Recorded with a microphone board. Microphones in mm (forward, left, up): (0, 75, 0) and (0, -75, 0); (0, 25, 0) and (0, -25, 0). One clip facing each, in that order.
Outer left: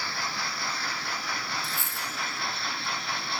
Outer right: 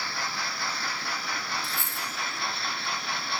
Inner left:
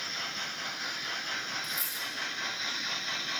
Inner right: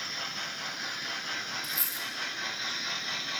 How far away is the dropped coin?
About 1.0 m.